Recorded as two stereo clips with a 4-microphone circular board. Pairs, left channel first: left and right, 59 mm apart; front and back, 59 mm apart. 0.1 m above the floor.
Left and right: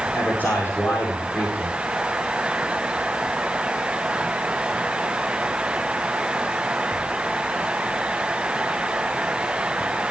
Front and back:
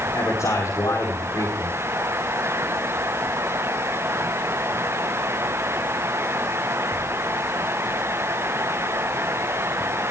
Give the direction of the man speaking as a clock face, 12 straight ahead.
11 o'clock.